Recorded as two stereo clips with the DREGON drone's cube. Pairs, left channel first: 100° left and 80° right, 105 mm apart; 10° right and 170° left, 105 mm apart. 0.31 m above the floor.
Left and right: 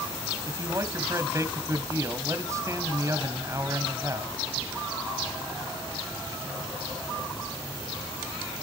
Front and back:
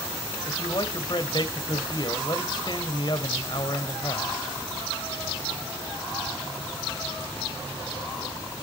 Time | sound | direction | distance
0.4 | a man speaking | 30° right | 1.5 m